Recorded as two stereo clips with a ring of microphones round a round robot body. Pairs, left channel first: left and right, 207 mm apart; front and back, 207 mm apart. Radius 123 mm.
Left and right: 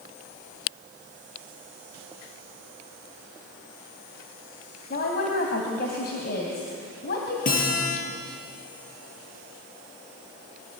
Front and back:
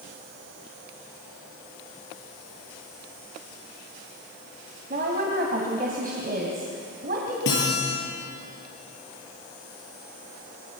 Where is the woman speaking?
130° left, 2.5 m.